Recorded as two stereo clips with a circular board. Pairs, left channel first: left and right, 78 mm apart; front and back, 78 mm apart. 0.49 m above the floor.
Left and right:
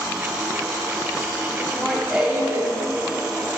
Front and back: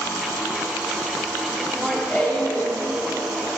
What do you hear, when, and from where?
1.6 s laughter: 115° left, 0.7 m; by 2.7 s 50° right, 1.0 m